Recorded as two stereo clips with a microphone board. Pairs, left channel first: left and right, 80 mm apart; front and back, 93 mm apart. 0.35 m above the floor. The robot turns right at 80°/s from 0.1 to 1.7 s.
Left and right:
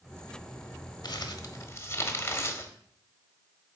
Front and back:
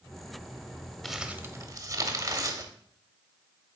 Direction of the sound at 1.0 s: 90° left.